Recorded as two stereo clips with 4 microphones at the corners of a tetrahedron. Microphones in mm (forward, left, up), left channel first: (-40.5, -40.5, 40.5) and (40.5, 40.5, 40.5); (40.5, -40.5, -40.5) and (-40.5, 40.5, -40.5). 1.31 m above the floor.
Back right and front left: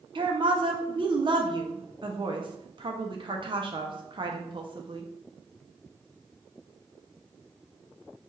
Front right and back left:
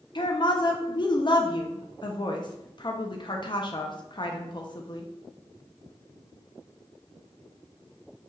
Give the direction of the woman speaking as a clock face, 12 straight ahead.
12 o'clock.